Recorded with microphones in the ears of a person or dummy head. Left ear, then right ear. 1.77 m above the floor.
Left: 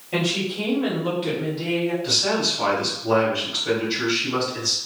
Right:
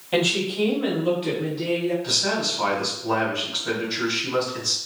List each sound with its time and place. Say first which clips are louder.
0.1 s a woman speaking: right 2 dB; 25° right (ahead or behind), 0.8 m; by 1.9 s 15° left (ahead or behind), 1.4 m
2.0 s a man speaking: left 4 dB; 15° left (ahead or behind), 1.7 m